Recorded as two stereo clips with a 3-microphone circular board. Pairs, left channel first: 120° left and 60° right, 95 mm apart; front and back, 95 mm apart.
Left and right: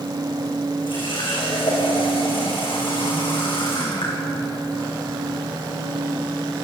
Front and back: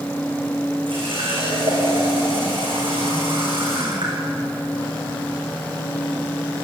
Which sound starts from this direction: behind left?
A running tap, at 0.9 s.